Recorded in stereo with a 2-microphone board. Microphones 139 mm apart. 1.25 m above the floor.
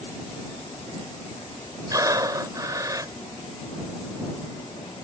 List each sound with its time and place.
1.9 s breathing: 25° right (ahead or behind)